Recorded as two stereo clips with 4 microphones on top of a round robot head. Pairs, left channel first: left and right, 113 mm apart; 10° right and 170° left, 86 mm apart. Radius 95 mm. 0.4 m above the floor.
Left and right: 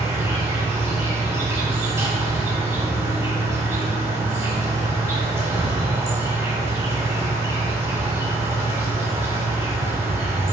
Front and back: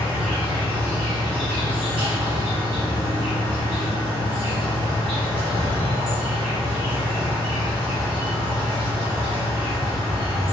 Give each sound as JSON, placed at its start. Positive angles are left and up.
{"t": 0.0, "sound": "an insect", "azimuth_deg": -155, "distance_m": 1.0}